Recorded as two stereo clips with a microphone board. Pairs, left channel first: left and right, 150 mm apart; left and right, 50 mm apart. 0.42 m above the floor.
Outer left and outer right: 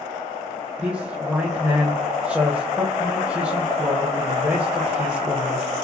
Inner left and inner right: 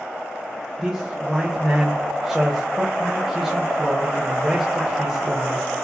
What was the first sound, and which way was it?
A man speaking, 10° right (ahead or behind).